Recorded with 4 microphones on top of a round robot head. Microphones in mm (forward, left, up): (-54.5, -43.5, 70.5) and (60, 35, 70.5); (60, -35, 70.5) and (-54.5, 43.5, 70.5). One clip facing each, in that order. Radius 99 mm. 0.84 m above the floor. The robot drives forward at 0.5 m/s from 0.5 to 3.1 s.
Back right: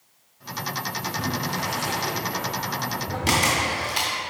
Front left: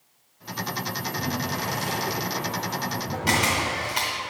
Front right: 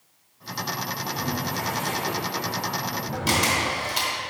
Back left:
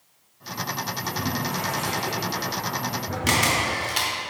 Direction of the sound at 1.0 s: 165° left.